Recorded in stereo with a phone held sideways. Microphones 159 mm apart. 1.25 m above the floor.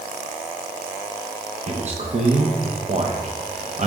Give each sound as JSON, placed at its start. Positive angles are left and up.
{"t": 1.7, "sound": "a man speaking", "side_deg": -45, "distance_m": 0.9}